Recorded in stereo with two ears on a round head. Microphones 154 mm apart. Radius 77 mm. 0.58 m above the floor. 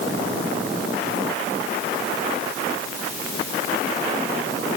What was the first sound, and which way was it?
Only background noise.